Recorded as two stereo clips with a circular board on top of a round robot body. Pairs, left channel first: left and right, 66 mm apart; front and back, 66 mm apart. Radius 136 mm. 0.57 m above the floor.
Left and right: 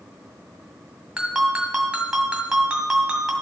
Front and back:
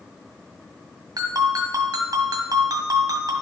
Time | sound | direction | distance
1.2 | a ringtone | 170° right | 1.9 m